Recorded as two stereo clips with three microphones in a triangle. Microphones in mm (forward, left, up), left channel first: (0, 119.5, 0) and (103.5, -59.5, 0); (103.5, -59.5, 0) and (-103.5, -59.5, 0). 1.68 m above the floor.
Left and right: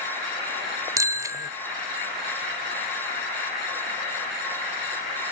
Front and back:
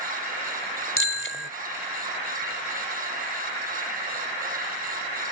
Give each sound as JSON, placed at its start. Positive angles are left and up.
{"t": 1.0, "sound": "a bicycle bell", "azimuth_deg": 15}